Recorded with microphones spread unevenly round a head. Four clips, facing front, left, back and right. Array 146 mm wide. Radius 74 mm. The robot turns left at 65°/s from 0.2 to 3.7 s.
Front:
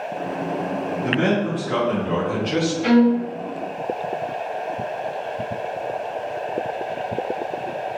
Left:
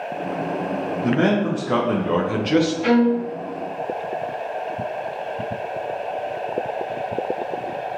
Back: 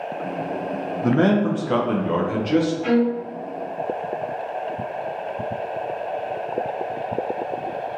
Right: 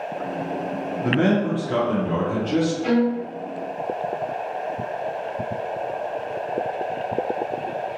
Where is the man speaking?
165° left, 0.6 m; by 2.7 s 55° left, 0.6 m.